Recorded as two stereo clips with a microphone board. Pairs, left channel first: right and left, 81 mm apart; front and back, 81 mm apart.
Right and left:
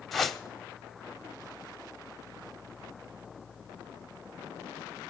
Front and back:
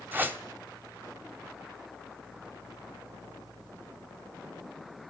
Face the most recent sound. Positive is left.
turn(degrees=-175)